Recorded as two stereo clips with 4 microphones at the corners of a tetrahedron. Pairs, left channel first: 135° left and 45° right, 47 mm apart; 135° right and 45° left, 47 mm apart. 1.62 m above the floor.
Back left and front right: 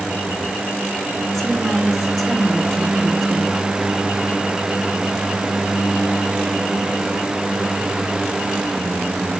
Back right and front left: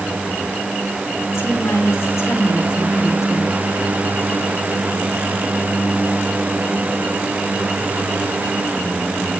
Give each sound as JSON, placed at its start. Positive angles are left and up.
{"t": 1.3, "sound": "a woman speaking", "azimuth_deg": -125, "distance_m": 2.0}